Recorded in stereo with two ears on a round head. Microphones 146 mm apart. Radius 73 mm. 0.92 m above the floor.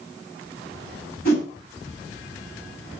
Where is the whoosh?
60° left (ahead or behind), 6 m.